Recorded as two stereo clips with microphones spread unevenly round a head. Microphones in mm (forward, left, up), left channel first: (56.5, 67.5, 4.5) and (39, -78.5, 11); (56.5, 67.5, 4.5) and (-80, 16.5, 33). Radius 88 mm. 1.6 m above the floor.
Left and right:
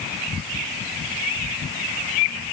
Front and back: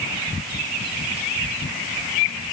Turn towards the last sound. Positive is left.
No sound to turn to.